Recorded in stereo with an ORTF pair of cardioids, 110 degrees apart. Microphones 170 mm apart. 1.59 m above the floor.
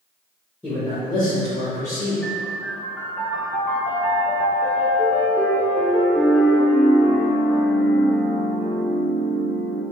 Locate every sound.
0.6 s a man speaking: 10° left, 1.6 m; by 2.1 s 55° left, 2.5 m
2.2 s a piano: 10° left, 0.9 m